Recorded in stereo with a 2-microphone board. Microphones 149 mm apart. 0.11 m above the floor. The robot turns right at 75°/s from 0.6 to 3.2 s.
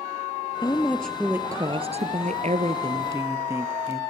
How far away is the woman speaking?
About 2.0 m.